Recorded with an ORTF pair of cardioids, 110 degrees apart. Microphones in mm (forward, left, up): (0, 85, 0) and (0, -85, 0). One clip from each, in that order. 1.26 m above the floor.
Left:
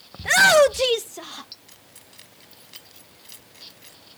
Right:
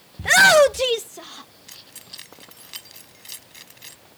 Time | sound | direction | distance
0.2 | a shout | 20° right | ?
1.7 | keys jangling | 40° right | ?